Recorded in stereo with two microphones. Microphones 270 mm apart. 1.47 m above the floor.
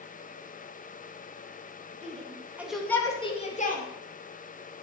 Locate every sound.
2.0 s a shout: 25° right (ahead or behind), 2.5 m; by 3.8 s 35° left (ahead or behind), 3 m